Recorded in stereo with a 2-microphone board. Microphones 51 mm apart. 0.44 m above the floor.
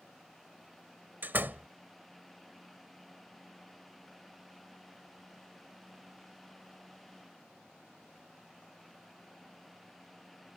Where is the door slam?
40° right (ahead or behind).